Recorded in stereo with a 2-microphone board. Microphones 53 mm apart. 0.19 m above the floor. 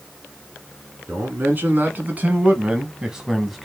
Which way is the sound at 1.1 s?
40° right (ahead or behind).